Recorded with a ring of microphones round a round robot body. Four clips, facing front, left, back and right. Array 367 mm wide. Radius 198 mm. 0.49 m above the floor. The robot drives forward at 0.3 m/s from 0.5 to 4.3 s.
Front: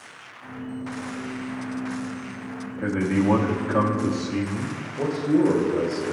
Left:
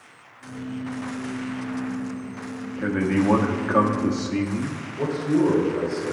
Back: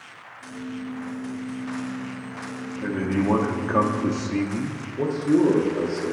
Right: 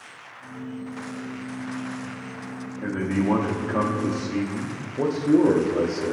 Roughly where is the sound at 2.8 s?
Ahead left.